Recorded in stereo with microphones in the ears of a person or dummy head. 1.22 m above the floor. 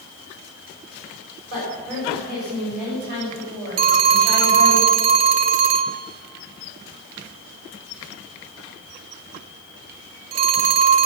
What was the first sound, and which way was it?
A woman speaking, 45° right (ahead or behind).